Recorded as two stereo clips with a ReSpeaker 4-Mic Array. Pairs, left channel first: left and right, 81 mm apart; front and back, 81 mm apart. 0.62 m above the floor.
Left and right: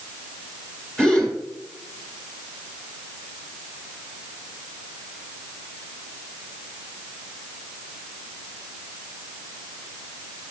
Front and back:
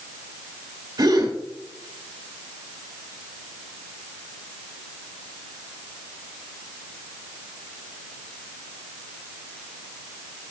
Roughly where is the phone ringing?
No phone ringing in this recording.